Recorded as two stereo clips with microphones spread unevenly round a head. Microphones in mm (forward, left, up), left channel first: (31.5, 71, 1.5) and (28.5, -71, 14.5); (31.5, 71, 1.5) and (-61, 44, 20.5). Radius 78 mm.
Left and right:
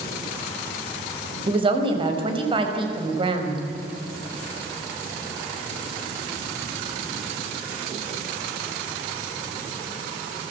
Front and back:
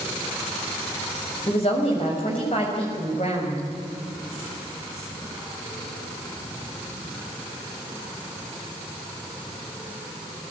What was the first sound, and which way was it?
A woman speaking, 35° right.